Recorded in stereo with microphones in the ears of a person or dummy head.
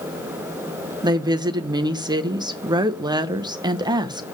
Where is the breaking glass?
No breaking glass in this recording.